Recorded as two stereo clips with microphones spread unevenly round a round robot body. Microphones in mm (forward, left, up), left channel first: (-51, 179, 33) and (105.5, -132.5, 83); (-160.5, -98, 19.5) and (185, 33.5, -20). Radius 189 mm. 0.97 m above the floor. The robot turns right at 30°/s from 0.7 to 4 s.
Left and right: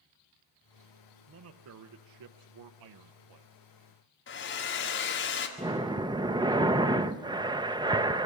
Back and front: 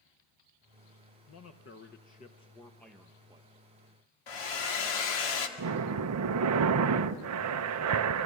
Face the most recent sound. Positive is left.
turn(degrees=20)